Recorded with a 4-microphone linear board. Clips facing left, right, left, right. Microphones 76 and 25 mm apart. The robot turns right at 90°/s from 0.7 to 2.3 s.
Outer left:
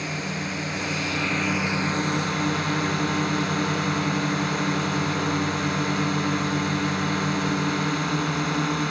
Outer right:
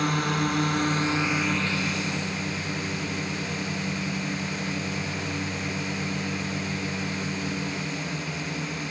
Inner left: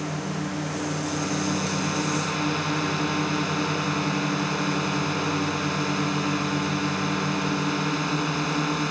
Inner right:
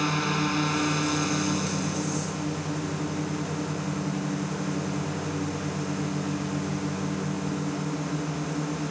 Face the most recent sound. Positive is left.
turn(degrees=75)